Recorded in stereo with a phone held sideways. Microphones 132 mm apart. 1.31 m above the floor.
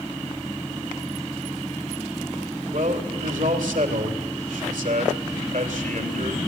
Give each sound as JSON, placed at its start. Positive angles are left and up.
{"t": 2.7, "sound": "a man speaking", "side_deg": -80, "distance_m": 3.0}